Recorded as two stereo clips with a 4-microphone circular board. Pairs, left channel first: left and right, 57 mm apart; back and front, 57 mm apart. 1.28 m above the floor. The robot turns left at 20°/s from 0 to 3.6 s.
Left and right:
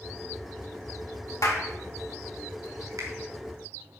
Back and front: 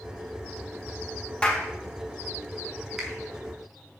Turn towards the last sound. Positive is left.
turn(degrees=-90)